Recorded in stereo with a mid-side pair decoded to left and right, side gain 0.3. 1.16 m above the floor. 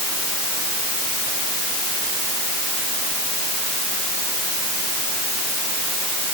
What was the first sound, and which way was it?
Only background noise.